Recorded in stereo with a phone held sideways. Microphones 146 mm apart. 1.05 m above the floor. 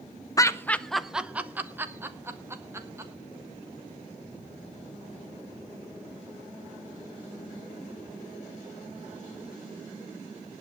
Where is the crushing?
No crushing in this recording.